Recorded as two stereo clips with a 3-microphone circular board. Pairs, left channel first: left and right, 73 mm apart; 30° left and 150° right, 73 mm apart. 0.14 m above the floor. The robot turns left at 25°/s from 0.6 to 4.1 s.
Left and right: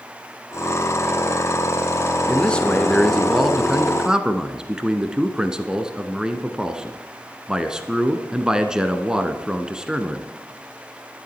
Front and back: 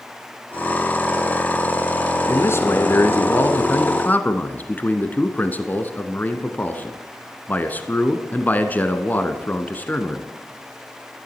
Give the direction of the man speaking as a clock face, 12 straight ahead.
11 o'clock.